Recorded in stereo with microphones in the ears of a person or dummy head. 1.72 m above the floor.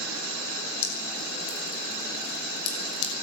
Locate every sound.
0.8 s dripping: 85° left, 7.5 m